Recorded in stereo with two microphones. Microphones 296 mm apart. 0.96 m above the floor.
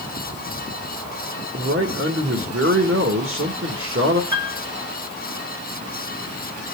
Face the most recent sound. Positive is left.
turn(degrees=-80)